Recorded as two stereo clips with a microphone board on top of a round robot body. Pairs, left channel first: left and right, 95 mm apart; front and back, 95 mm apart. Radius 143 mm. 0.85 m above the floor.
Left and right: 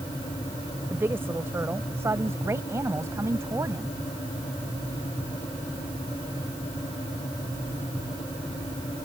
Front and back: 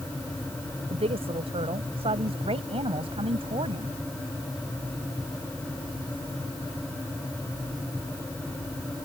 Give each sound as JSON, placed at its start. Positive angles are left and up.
{"t": 0.9, "sound": "a woman speaking", "azimuth_deg": -160}